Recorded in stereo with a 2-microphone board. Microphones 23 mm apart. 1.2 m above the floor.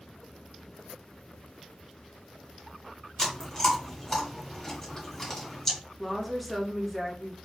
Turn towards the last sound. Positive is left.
turn(degrees=0)  # may be behind; listen again after turning